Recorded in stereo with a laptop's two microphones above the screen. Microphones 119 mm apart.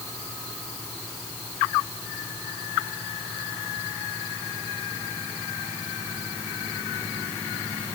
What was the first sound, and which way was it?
Only background noise.